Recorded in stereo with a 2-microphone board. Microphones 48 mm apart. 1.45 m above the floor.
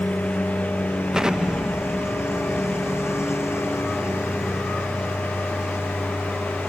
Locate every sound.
0.0 s a lawn mower: 75° left (ahead or behind)
1.1 s an explosion: 15° right (ahead or behind)